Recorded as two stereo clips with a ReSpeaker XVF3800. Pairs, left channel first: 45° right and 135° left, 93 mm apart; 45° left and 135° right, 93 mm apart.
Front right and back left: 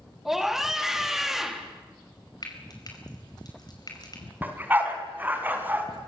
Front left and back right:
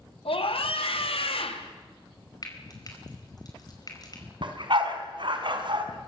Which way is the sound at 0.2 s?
50° left.